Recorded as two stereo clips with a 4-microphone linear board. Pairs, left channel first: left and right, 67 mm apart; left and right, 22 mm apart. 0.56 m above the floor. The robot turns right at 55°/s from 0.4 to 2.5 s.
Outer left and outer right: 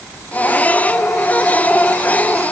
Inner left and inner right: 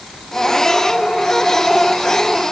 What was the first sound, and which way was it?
Only background noise.